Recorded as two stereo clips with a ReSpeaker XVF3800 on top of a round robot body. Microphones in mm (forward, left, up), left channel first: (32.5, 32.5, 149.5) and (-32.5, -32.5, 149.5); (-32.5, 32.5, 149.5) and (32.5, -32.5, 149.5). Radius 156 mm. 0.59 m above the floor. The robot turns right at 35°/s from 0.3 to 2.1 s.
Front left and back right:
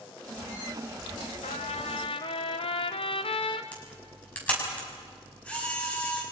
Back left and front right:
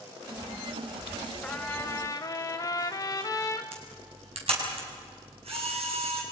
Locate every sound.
1.4 s a trumpet: 55° left, 0.9 m; by 3.6 s 75° left, 0.9 m
3.7 s a camera shutter: 30° right, 6 m